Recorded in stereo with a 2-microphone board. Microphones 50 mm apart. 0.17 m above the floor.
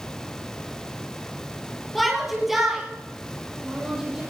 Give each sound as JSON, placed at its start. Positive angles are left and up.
{"t": 1.9, "sound": "a shout", "side_deg": 0, "distance_m": 4.5}